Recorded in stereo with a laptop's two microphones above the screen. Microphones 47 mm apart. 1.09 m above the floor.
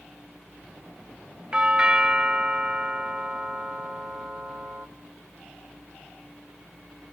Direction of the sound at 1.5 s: 20° right (ahead or behind).